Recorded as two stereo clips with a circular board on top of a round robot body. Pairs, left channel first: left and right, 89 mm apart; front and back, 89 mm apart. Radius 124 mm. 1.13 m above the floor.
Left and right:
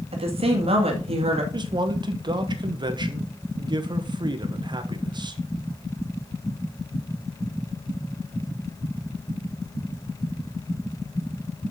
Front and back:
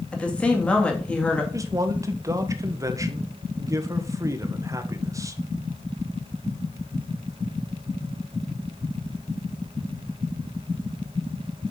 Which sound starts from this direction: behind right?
A man speaking, at 1.5 s.